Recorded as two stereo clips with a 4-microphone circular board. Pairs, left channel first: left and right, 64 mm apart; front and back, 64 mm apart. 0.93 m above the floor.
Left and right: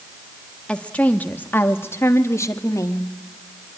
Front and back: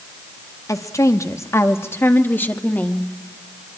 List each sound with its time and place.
0.7 s a woman speaking: 20° left, 2 m; by 3.1 s 65° left, 2.5 m